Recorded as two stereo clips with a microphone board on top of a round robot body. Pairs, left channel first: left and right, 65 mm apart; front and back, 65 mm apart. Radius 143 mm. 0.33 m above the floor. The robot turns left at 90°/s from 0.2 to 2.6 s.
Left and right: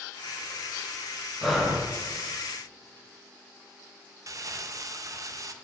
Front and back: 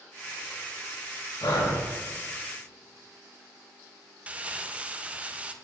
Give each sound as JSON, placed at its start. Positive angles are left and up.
{"t": 1.4, "sound": "breathing", "azimuth_deg": 5, "distance_m": 1.7}
{"t": 4.3, "sound": "crumpling", "azimuth_deg": -110, "distance_m": 0.6}